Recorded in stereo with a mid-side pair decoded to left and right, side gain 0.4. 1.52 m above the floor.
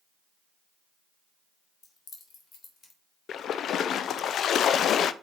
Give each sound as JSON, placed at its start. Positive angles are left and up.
{"t": 1.8, "sound": "keys jangling", "azimuth_deg": 55, "distance_m": 3.0}
{"t": 3.3, "sound": "a splash", "azimuth_deg": 70, "distance_m": 0.5}